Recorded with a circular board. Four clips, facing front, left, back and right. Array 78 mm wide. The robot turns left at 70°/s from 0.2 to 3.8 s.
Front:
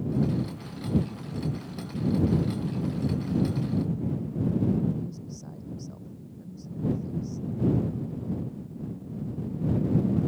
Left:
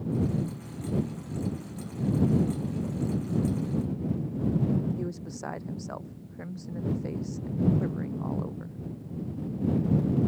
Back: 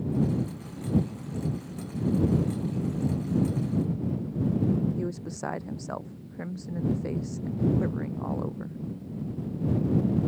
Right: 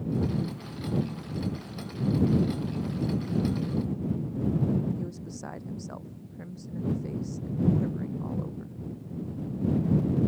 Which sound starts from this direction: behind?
A woman speaking, at 5.0 s.